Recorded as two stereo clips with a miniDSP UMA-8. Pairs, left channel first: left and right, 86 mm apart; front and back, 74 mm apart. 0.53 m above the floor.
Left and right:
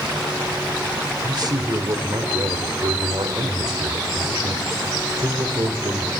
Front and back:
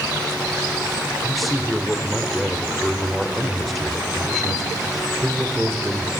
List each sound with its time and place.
1.2 s a man speaking: 90° right, 2.0 m